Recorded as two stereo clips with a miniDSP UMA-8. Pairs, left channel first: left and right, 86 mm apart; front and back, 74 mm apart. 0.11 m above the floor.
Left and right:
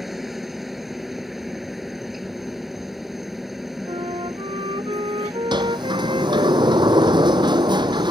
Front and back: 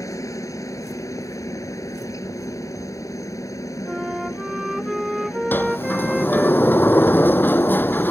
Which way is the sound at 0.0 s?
Straight ahead.